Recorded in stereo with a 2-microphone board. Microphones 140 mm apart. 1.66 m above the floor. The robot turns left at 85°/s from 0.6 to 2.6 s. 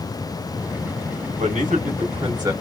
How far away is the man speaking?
About 1.0 m.